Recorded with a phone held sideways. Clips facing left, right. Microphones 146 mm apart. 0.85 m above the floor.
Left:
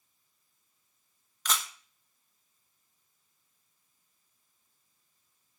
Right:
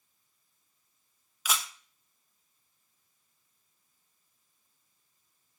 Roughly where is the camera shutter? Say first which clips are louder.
Even; centre.